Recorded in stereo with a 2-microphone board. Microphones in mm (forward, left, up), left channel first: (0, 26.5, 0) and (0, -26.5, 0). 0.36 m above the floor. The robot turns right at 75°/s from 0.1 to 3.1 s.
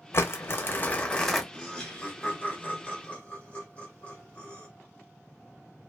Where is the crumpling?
85° left, 0.6 m; by 1.4 s straight behind, 0.6 m.